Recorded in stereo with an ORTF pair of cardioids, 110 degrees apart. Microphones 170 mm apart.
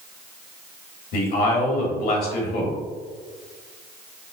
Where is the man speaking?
70° left, 1.6 m.